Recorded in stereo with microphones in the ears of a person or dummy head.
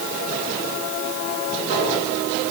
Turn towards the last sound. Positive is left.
No sound to turn to.